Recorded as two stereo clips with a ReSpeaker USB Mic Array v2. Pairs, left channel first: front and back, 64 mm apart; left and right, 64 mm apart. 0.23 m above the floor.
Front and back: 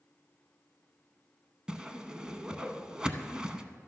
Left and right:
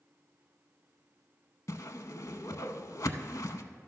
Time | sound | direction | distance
1.7 | a whoosh | 105° left | 0.6 m